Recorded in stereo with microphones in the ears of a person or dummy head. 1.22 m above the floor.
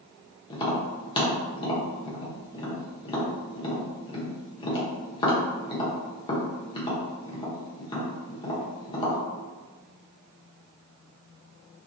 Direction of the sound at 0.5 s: 25° left (ahead or behind).